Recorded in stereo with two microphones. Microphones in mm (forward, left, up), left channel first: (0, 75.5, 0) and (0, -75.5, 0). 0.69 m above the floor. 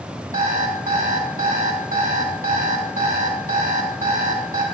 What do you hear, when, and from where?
0.3 s an alarm clock: 70° right (ahead or behind), 3 m